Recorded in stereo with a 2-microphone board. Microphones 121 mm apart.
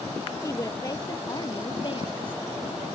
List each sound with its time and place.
0.4 s a woman speaking: 25° left (ahead or behind); by 2.4 s 50° left (ahead or behind)